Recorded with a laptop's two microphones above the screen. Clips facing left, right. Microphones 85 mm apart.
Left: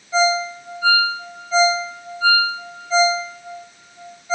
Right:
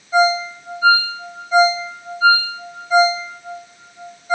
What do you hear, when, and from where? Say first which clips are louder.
0.1 s a ringtone: right 3 dB; 20° right (ahead or behind), 4 m